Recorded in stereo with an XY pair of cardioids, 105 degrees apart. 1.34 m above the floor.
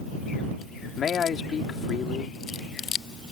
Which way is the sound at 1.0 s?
50° left.